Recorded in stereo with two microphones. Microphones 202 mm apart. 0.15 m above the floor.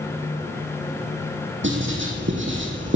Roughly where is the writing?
Right.